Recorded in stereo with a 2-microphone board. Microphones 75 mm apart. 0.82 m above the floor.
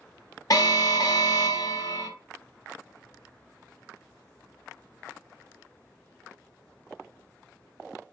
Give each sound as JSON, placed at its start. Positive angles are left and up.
{"t": 0.5, "sound": "an alarm", "side_deg": 55, "distance_m": 0.6}